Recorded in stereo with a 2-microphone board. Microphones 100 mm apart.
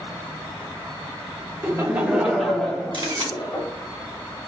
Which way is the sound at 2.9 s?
55° right (ahead or behind).